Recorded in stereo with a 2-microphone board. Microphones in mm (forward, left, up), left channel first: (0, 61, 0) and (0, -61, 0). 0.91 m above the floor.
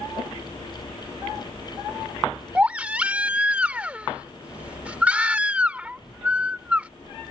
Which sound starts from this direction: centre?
A baby crying, at 2.5 s.